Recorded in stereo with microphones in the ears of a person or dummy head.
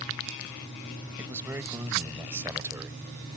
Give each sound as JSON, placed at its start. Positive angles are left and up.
{"t": 1.2, "sound": "a man speaking", "side_deg": -15}